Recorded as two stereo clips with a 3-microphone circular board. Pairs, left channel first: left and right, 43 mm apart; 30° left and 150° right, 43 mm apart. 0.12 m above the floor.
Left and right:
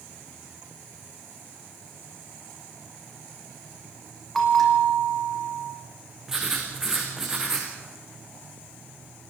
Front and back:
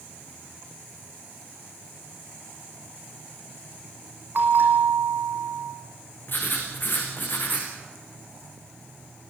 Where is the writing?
10° right, 4.5 m.